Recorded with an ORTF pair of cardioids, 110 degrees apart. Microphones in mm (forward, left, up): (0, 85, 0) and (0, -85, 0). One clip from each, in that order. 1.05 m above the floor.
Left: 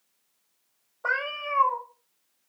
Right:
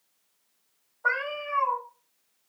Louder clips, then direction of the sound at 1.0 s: Even; 45° left.